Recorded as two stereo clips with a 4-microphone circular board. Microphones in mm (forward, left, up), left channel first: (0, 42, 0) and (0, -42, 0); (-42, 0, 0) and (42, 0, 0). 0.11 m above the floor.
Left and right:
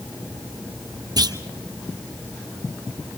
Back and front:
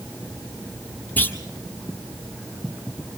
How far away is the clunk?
About 1.6 m.